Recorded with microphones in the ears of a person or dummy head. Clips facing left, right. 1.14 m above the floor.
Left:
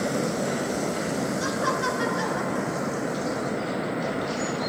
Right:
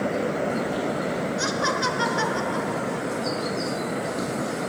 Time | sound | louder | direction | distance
1.4 | laughter | right 1 dB | 60° right (ahead or behind) | 2.5 m